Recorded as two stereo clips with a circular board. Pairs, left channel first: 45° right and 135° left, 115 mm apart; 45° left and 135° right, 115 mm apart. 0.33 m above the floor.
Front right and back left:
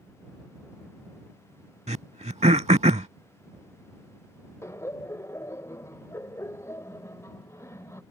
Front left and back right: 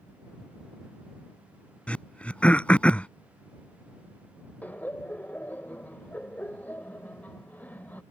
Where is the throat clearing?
125° left.